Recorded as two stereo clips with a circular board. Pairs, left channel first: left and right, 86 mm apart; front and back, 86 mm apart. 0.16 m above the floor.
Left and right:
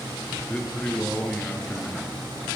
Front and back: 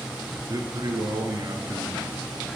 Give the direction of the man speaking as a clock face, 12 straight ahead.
7 o'clock.